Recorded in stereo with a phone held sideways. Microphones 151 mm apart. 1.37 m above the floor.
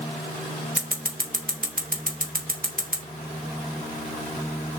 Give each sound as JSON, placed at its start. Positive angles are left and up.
{"t": 0.8, "sound": "scissors", "side_deg": -65, "distance_m": 2.5}